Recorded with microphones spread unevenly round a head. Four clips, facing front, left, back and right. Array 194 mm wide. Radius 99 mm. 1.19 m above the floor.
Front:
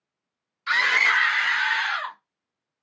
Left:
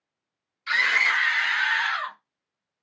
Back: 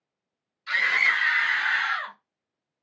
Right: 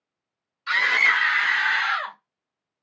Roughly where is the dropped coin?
No dropped coin in this recording.